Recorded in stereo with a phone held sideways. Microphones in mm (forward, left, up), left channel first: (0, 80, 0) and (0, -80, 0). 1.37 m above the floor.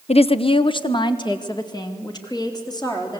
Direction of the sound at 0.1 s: 40° left (ahead or behind).